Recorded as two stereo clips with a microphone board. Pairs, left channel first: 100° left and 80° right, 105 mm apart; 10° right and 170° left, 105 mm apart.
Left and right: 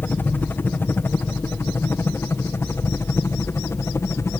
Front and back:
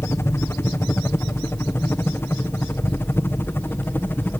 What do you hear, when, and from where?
0.0 s a helicopter: 40° left; by 4.4 s 50° left